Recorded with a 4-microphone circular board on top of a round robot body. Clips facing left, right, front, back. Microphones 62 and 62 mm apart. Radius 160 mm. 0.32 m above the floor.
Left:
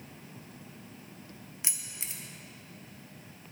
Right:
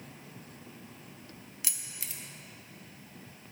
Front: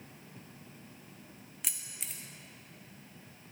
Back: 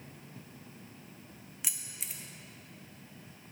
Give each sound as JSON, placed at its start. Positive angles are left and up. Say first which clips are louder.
{"t": 1.6, "sound": "keys jangling", "louder": "left 1 dB, even", "azimuth_deg": 100, "distance_m": 0.9}